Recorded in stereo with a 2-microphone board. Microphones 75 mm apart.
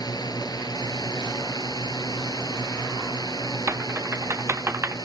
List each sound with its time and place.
0.0 s a drone: 65° left (ahead or behind); by 5.1 s 60° left (ahead or behind)
3.7 s typing on a keyboard: 35° right (ahead or behind)